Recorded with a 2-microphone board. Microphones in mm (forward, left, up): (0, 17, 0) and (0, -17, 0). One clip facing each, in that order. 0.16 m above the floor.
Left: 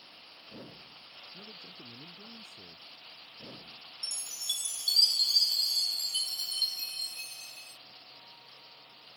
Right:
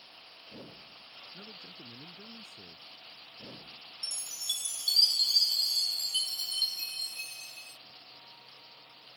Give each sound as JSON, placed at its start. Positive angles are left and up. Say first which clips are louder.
{"t": 1.3, "sound": "a man speaking", "louder": "even", "side_deg": -55}
{"t": 4.0, "sound": "a chime", "louder": "even", "side_deg": -15}